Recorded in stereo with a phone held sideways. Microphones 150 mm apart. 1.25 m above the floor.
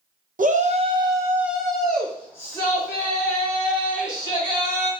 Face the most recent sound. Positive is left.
turn(degrees=30)  # may be behind; listen again after turning